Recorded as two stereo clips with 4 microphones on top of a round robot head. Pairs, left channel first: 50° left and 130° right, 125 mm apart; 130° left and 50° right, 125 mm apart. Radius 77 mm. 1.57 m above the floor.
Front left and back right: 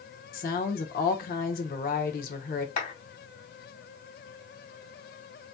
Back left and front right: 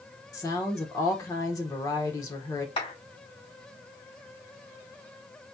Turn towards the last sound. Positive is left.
turn(degrees=85)